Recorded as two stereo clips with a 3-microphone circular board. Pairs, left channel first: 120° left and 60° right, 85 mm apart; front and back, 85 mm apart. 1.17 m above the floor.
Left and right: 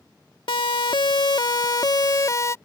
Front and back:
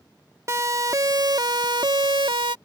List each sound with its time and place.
0.5 s a siren: 125° left; by 2.5 s 170° left